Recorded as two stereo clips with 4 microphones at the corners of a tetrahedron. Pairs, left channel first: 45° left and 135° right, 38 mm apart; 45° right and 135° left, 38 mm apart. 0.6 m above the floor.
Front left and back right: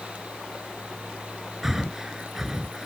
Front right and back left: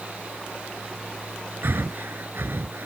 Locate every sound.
1.6 s breathing: 145° left